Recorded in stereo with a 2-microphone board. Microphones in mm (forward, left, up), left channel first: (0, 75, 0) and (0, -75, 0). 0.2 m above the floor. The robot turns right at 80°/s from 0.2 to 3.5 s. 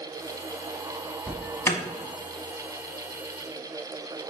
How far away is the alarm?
About 0.8 m.